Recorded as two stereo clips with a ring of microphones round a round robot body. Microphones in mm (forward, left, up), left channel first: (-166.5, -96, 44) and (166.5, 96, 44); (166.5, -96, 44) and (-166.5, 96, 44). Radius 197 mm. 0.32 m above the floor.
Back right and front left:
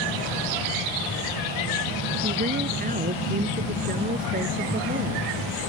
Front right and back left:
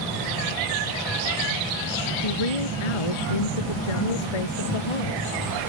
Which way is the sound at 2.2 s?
40° right.